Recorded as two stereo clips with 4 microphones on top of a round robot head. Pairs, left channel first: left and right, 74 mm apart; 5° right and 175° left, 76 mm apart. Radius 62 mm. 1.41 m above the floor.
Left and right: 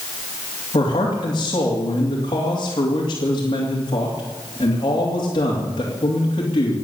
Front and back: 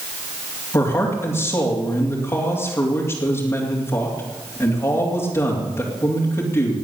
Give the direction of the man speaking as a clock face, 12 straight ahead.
10 o'clock.